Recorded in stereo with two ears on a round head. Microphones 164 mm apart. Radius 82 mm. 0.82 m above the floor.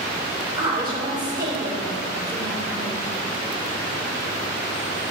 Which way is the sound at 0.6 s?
25° right (ahead or behind).